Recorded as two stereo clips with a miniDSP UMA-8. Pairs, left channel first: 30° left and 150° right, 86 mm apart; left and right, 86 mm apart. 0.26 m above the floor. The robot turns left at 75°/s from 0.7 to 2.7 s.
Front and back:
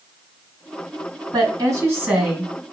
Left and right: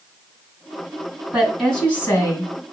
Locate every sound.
1.3 s a woman speaking: 170° right, 2.5 m; by 2.6 s 95° left, 2.5 m